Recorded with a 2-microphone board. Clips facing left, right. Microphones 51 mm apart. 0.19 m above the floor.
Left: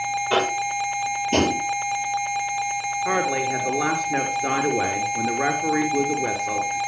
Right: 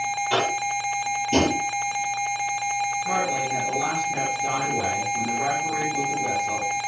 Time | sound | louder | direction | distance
0.3 | tapping | left 2 dB | 20° left (ahead or behind) | 5.5 m
3.0 | a woman speaking | left 2 dB | 65° left (ahead or behind) | 3.5 m